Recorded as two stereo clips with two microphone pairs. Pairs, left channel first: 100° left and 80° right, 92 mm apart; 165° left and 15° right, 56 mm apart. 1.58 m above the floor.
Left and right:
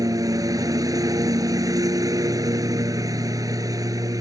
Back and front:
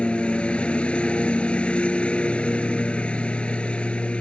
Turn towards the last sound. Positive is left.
turn(degrees=-125)